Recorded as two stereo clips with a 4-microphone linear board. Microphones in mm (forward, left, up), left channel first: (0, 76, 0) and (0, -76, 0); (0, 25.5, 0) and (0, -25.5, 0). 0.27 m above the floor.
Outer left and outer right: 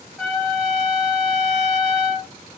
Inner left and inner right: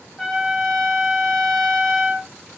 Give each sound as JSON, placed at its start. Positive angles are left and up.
{"t": 0.2, "sound": "a trumpet", "side_deg": 0, "distance_m": 1.9}